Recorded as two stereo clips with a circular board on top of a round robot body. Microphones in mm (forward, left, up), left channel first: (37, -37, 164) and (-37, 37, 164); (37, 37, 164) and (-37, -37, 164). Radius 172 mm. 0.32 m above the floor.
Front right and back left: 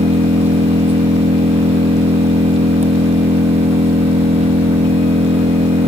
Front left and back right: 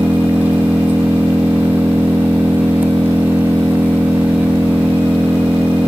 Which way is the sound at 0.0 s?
150° left.